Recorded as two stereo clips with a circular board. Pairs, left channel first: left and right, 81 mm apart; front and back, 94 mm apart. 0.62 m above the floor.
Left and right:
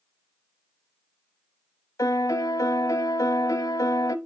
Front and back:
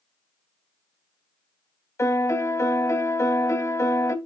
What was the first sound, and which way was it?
A piano, 50° left.